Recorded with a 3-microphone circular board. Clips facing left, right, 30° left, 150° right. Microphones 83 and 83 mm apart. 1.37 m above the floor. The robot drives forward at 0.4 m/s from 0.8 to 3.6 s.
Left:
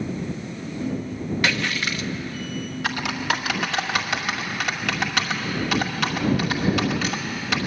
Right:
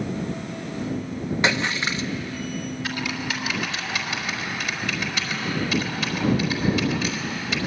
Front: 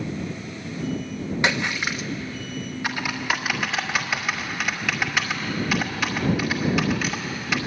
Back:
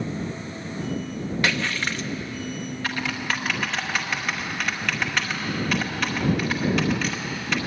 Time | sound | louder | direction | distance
1.4 | a splash | right 2 dB, front 2 dB | 35° right | 0.9 m
2.8 | typing on a keyboard | left 7 dB, front 2 dB | 105° left | 2.5 m